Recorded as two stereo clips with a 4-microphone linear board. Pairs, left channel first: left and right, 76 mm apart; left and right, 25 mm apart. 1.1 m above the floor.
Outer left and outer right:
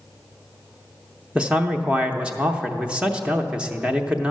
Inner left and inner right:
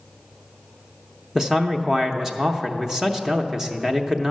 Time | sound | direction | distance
1.4 | a man speaking | 15° right (ahead or behind) | 0.6 m